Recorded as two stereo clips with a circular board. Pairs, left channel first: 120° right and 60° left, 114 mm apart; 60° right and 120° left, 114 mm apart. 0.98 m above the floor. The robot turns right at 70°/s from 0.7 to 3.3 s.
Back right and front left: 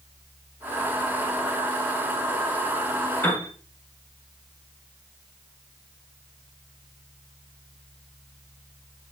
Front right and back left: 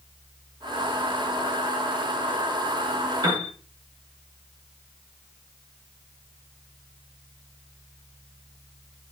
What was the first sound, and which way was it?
A piano, 170° left.